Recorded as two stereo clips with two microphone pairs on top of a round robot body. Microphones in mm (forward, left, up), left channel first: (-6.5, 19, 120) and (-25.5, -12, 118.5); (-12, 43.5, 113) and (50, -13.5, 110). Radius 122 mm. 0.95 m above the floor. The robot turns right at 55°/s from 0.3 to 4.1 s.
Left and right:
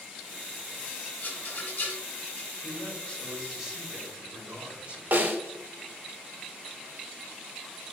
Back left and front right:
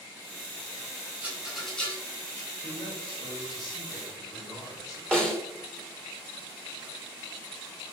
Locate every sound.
1.2 s a rattle: 25° left, 3.5 m; by 2.5 s 95° left, 3.5 m
2.6 s a man speaking: 100° left, 3 m; by 5.0 s 175° right, 3 m
5.1 s a snare drum: 140° right, 1.8 m